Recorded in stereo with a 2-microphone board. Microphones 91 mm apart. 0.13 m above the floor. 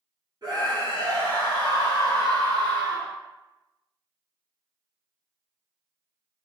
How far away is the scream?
About 2.0 m.